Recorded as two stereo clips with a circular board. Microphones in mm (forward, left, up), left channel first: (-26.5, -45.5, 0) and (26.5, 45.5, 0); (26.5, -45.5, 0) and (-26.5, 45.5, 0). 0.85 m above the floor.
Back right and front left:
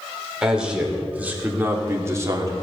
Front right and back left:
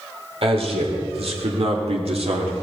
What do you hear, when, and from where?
0.4 s a man speaking: 145° left, 3.5 m; by 2.5 s 115° left, 2.5 m